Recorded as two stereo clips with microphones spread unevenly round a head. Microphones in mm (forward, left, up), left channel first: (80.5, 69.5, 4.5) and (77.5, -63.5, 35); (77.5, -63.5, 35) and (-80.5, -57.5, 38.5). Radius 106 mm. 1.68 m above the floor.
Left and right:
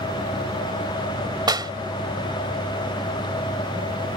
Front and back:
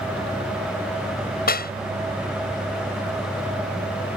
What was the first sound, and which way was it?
A clap, 35° right.